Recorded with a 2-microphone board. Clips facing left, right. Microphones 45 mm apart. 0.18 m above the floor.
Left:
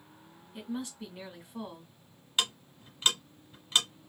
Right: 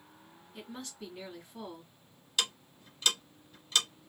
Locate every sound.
0.5 s a woman speaking: 15° left (ahead or behind), 1.8 m
2.4 s ticking: 30° left (ahead or behind), 1.4 m